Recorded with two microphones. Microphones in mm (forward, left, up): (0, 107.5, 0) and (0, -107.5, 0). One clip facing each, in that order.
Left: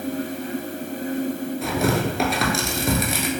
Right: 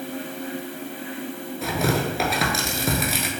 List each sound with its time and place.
1.6 s tearing paper: centre (ahead or behind), 0.5 m